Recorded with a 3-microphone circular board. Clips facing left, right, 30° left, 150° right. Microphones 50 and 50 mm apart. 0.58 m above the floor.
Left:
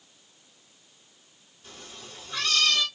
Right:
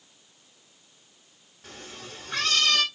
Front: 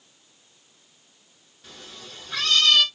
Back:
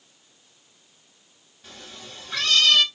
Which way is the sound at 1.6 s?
60° right.